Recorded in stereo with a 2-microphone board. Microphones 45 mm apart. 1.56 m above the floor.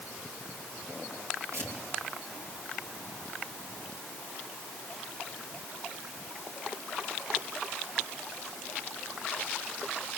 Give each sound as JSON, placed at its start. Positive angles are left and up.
{"t": 1.5, "sound": "tearing paper", "side_deg": -60, "distance_m": 5.0}